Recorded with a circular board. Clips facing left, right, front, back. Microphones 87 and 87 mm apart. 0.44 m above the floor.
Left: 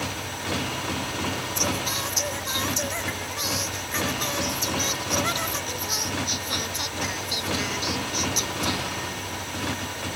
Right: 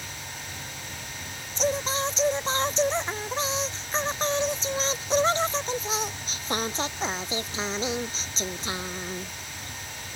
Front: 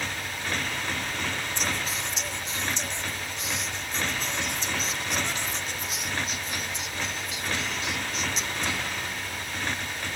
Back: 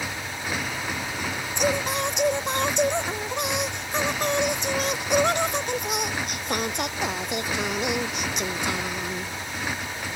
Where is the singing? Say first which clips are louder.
Right 2 dB, back 7 dB; 150° right.